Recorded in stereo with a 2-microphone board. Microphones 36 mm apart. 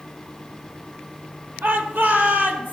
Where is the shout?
75° right (ahead or behind), 4.5 m; by 2.7 s 70° right (ahead or behind), 4 m.